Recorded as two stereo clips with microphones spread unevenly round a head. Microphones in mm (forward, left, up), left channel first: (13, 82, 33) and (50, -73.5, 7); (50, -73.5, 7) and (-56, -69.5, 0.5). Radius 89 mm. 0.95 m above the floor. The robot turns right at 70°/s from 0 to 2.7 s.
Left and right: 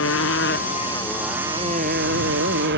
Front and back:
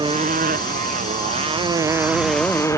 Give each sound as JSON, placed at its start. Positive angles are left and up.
{"t": 0.0, "sound": "a motorcycle", "azimuth_deg": 105}